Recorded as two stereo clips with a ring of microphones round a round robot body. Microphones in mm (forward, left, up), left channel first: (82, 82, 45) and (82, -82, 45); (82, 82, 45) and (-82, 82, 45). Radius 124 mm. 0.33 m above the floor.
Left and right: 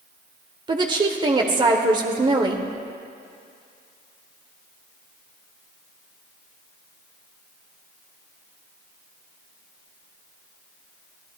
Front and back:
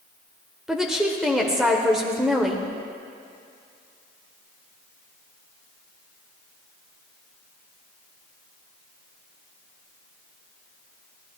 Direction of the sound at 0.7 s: 95° right.